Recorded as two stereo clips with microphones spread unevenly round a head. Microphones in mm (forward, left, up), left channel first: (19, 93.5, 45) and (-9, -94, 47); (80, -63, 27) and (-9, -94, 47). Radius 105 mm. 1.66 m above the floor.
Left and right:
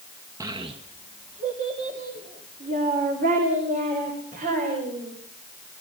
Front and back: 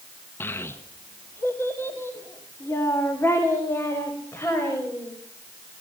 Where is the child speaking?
50° right, 0.9 m.